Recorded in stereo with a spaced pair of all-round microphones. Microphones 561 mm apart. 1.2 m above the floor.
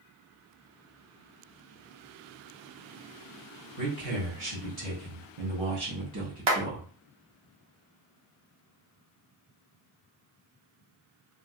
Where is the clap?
50° right (ahead or behind), 0.8 m.